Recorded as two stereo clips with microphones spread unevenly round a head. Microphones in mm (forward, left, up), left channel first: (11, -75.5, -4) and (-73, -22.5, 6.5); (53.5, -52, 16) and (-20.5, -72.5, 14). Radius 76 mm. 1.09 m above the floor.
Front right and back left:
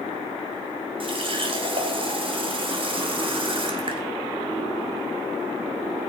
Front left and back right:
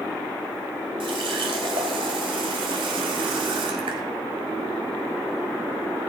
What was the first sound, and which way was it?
A running tap, 175° left.